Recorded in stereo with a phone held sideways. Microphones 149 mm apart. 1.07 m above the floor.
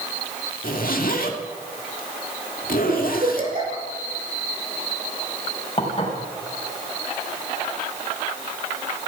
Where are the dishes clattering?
45° left (ahead or behind), 3.5 m.